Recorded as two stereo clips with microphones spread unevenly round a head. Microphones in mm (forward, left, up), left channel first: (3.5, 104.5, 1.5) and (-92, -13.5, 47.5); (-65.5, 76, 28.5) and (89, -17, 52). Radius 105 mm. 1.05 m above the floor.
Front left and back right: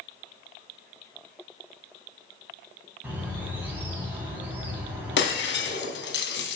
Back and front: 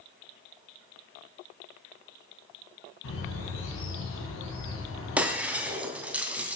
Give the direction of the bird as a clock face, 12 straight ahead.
7 o'clock.